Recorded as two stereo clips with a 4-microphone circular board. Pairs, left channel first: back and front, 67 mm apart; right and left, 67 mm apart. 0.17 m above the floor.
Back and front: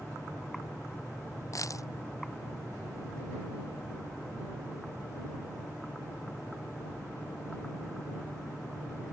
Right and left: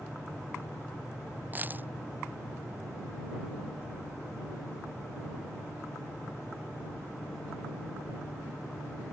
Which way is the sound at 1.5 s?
150° left.